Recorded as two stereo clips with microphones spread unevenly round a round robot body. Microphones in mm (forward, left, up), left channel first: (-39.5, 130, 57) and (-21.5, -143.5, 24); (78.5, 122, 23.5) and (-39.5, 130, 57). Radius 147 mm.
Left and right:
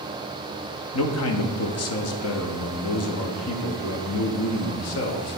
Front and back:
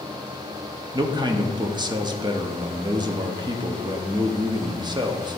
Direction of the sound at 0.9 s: 115° left.